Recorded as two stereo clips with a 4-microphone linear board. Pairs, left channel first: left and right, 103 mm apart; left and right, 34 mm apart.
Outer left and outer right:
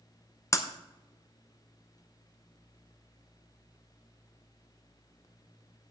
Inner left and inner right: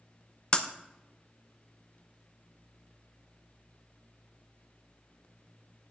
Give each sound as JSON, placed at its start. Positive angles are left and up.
{"t": 0.5, "sound": "breaking glass", "side_deg": 30, "distance_m": 0.7}